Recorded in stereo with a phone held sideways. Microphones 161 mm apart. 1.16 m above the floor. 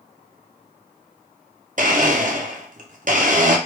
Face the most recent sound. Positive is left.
turn(degrees=-55)  # may be behind; listen again after turning